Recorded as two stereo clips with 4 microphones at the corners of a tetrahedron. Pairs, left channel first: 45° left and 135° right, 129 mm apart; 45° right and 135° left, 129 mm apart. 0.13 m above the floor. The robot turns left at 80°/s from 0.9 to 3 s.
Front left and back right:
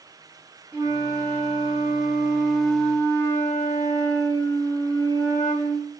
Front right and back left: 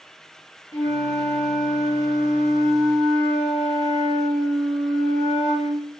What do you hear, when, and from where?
0.7 s a flute: 85° right, 1.0 m; by 5.9 s 110° left, 1.0 m